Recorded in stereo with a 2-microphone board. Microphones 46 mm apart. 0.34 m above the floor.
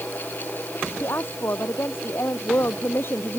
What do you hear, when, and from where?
1.0 s a woman speaking: 65° left (ahead or behind); by 3.4 s 55° left (ahead or behind)